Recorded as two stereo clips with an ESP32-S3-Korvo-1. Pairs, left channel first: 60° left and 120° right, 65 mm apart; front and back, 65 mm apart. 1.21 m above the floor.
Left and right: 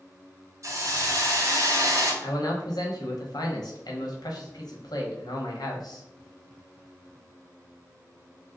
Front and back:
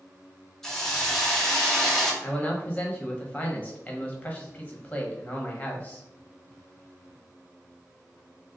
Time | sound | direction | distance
0.6 | a hiss | 85° right | 0.8 m
2.2 | a man speaking | 70° left | 1.0 m